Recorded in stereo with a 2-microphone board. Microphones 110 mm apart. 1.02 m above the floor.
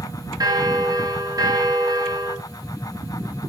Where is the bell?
35° right (ahead or behind), 0.8 m.